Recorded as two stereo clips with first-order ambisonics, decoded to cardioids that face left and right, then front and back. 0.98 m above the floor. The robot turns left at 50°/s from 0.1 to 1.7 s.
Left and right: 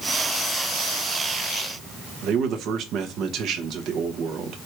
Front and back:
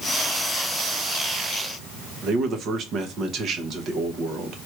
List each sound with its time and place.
2.2 s a man speaking: 130° right, 0.8 m